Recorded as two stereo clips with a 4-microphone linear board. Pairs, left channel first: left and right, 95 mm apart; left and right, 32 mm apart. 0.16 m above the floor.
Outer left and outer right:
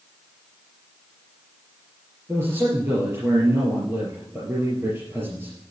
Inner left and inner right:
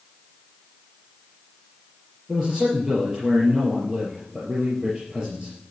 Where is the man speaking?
25° right (ahead or behind), 4 m.